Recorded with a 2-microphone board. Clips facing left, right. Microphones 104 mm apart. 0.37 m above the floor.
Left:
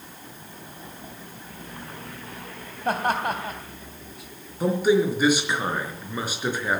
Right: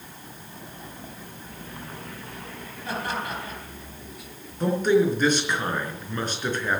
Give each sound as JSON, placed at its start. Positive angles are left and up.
{"t": 2.9, "sound": "laughter", "side_deg": 60, "distance_m": 3.0}
{"t": 4.6, "sound": "a man speaking", "side_deg": 10, "distance_m": 4.0}